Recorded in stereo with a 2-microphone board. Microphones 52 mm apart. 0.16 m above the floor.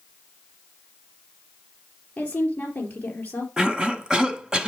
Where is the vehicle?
I don't hear a vehicle.